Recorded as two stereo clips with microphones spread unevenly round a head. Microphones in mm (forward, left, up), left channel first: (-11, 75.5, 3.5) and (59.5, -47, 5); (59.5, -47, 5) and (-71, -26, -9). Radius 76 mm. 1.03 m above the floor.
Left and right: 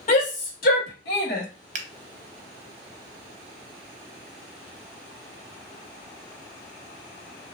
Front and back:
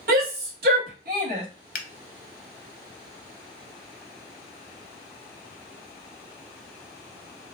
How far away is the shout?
About 1.6 m.